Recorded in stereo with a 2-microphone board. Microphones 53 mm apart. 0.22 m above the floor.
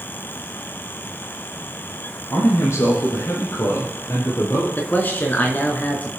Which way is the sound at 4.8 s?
35° left (ahead or behind).